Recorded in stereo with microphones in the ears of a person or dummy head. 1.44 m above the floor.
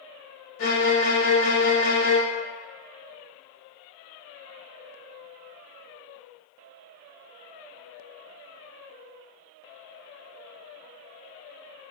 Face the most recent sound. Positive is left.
turn(degrees=70)  # may be behind; listen again after turning